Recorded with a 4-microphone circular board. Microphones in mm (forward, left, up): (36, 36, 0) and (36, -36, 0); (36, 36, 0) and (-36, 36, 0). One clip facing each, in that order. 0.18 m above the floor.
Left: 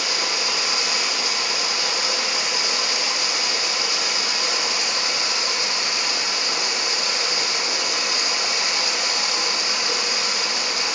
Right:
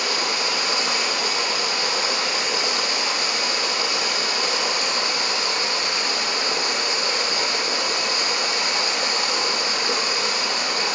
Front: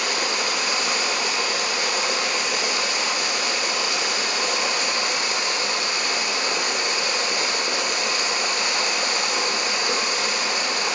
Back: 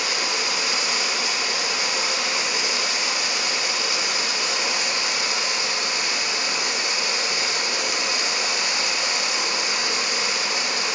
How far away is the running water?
About 1.9 m.